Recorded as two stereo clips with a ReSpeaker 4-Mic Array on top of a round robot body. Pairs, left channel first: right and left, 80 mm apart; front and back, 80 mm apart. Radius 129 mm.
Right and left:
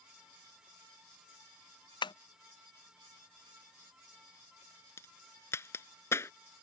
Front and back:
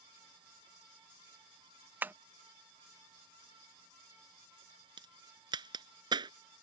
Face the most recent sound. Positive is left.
turn(degrees=-150)